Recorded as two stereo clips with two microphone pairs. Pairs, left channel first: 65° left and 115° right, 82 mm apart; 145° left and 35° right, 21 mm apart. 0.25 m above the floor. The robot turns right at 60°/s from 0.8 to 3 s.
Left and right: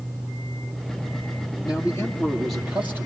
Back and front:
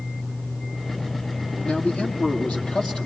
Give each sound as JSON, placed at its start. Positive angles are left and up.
{"t": 1.6, "sound": "a man speaking", "azimuth_deg": 105, "distance_m": 7.0}